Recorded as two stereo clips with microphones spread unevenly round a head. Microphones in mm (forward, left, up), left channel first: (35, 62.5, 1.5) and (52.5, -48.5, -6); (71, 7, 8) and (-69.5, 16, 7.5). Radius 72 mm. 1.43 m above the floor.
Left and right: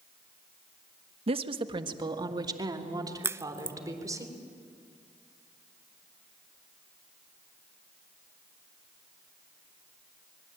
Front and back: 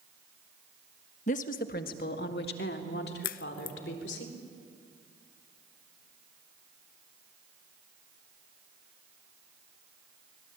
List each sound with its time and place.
1.3 s a woman speaking: 45° right, 1.2 m; by 4.2 s 20° right, 4 m
3.2 s a crack: 15° right, 0.6 m